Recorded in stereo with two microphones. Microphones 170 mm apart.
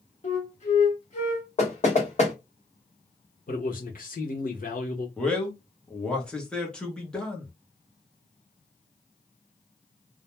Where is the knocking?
40° left (ahead or behind), 1.1 m.